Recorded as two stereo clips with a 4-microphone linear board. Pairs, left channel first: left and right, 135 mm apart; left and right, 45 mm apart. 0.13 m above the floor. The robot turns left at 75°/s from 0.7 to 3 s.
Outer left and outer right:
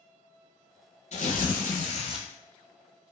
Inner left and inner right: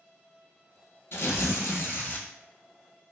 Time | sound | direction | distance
1.1 | tearing paper | 120° left | 0.6 m